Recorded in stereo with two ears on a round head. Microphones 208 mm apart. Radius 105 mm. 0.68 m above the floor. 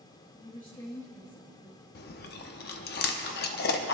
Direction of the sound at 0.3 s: 20° left (ahead or behind).